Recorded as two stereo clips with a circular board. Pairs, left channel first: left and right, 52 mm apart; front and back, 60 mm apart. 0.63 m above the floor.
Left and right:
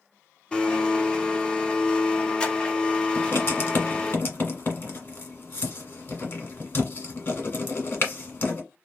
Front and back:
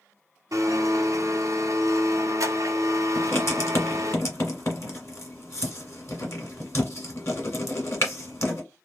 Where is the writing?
40° left, 1.5 m.